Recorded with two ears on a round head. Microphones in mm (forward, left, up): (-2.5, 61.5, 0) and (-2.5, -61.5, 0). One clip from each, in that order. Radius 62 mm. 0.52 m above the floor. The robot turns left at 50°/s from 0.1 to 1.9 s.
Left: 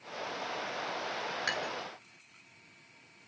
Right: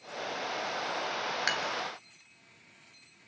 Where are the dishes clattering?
35° right (ahead or behind), 2 m; by 1.7 s 45° right (ahead or behind), 2 m.